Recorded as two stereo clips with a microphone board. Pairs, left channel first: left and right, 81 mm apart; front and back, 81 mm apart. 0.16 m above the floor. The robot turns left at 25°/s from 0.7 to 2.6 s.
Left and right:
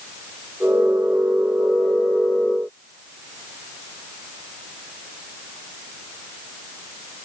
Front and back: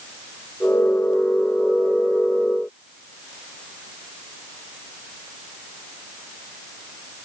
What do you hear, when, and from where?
Only background noise.